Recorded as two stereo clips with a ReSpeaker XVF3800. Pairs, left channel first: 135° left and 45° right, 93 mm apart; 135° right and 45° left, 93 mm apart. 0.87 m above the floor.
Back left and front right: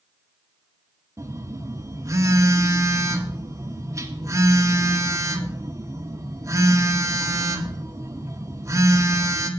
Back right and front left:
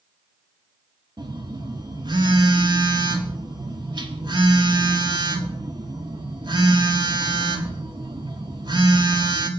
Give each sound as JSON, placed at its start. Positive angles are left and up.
{"t": 1.2, "sound": "a phone buzzing", "azimuth_deg": 10, "distance_m": 1.5}